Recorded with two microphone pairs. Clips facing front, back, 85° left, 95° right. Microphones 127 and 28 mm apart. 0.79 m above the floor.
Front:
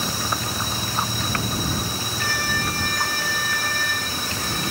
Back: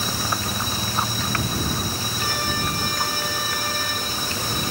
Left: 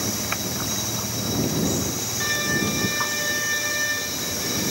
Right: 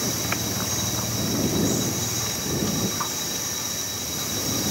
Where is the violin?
115° left.